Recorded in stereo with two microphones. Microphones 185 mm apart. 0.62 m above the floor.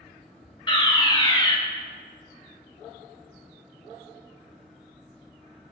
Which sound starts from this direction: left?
A fire alarm, at 0.7 s.